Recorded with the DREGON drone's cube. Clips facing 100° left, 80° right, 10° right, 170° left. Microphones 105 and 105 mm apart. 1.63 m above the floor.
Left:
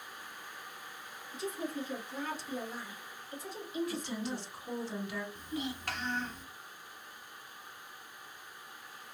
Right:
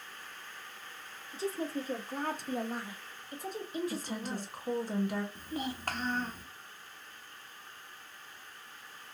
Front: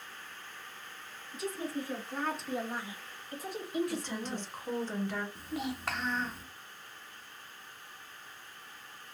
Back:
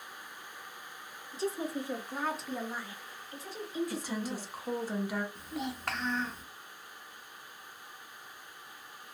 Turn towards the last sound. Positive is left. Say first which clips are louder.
# right 1 dB, front 1 dB
turn(degrees=-100)